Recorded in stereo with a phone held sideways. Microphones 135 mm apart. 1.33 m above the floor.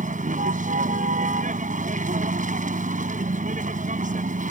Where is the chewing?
No chewing in this recording.